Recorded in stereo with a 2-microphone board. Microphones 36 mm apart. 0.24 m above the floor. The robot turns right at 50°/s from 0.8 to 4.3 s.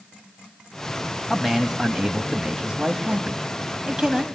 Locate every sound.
1.3 s a man speaking: 165° right, 1.1 m; by 4.2 s 20° right, 1.1 m